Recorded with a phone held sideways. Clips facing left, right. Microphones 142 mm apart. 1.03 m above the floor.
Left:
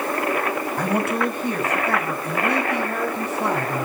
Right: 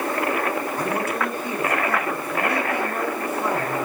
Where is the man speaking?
65° left (ahead or behind), 6 m; by 3.9 s 75° left (ahead or behind), 9 m.